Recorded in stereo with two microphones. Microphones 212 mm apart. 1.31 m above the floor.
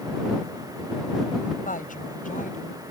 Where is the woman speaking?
40° left (ahead or behind); by 2.8 s 35° left (ahead or behind).